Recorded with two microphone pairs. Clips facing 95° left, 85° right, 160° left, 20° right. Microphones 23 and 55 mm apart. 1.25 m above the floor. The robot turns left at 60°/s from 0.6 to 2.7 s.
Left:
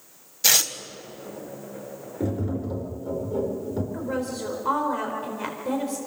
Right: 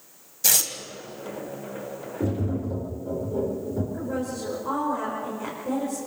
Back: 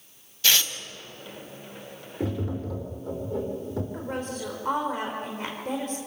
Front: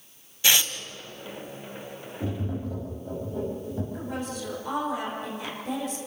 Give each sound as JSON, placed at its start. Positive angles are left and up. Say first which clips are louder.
{"t": 0.4, "sound": "tearing paper", "louder": "left 3 dB, front 1 dB", "azimuth_deg": 45, "distance_m": 1.3}
{"t": 2.2, "sound": "tapping", "louder": "even, back 2 dB", "azimuth_deg": 175, "distance_m": 4.0}
{"t": 3.9, "sound": "a woman speaking", "louder": "left 1 dB, back 1 dB", "azimuth_deg": 115, "distance_m": 4.5}